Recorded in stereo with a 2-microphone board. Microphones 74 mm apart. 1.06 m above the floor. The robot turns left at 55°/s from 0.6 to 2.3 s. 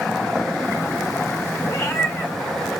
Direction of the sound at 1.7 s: 55° left (ahead or behind).